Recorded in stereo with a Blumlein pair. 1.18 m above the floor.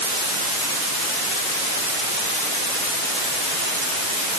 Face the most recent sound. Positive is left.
No sound to turn to.